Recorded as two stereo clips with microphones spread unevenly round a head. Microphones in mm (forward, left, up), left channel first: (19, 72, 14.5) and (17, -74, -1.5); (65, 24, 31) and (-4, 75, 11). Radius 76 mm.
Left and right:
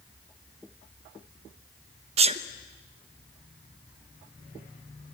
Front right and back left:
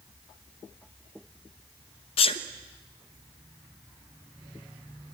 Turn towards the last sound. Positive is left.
turn(degrees=-40)